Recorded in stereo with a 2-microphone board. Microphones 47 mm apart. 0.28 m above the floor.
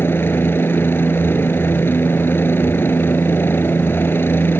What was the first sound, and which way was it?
A helicopter, 55° left (ahead or behind).